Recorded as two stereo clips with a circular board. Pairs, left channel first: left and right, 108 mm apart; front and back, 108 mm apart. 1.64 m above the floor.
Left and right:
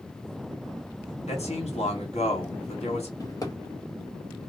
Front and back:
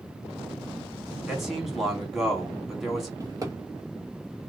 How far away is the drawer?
About 1.3 m.